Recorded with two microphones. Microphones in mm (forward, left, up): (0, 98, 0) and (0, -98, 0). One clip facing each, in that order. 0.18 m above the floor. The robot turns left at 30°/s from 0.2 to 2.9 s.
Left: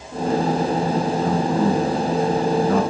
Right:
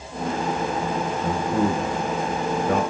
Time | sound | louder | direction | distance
1.2 | a man speaking | left 2 dB | 60° right (ahead or behind) | 6.5 m